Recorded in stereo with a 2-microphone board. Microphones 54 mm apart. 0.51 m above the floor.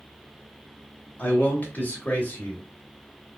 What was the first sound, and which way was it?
A man speaking, 35° left (ahead or behind).